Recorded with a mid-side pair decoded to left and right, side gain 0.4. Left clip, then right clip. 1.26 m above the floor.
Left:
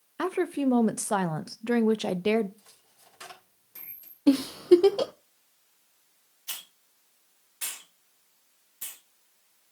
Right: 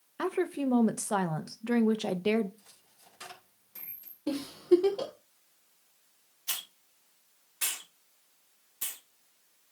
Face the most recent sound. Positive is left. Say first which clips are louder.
# right 3 dB
turn(degrees=-30)